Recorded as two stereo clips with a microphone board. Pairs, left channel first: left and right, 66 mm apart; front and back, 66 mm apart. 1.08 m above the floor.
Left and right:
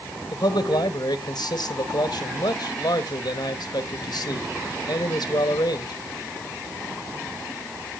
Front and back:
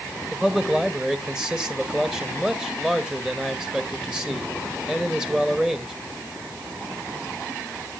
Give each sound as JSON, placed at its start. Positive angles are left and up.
{"t": 0.3, "sound": "a man speaking", "azimuth_deg": 100, "distance_m": 1.5}